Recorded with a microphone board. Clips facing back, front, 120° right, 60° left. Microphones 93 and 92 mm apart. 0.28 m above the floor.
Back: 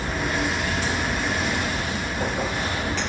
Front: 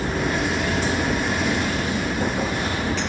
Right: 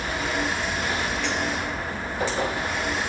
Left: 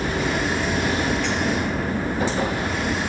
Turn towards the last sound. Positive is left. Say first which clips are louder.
# front 2 dB, left 4 dB
turn(degrees=35)